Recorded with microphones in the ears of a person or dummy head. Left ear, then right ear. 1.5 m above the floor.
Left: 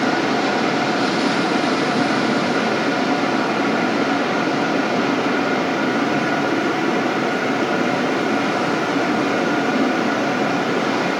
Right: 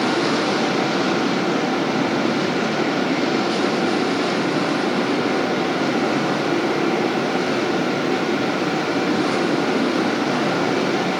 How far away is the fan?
About 1.8 m.